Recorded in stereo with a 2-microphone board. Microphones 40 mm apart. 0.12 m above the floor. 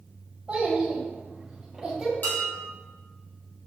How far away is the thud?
I don't hear a thud.